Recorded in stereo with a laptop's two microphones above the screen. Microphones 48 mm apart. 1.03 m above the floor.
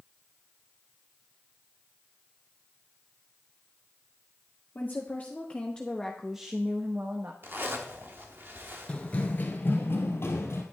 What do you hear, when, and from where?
4.8 s a woman speaking: 40° left (ahead or behind), 1.8 m; by 7.3 s 50° right (ahead or behind), 1.1 m
7.4 s a zipper: 50° right (ahead or behind), 1.0 m
8.9 s running footsteps: 25° left (ahead or behind), 1.0 m; by 10.6 s 60° left (ahead or behind), 2.0 m